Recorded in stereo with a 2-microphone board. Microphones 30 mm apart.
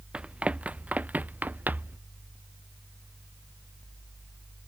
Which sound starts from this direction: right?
Running footsteps, at 0.1 s.